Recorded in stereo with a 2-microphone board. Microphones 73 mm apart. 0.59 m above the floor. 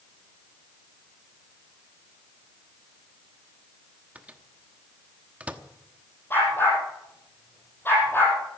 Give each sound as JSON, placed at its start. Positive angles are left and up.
{"t": 4.2, "sound": "a microwave", "side_deg": -15, "distance_m": 1.0}
{"t": 6.3, "sound": "a dog barking", "side_deg": 25, "distance_m": 6.5}